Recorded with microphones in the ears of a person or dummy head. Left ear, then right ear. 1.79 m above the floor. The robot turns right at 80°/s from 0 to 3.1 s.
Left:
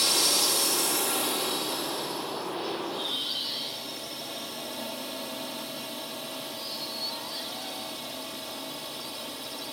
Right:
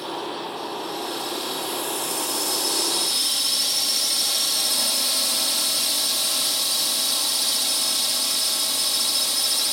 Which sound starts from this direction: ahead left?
A drone, at 0.0 s.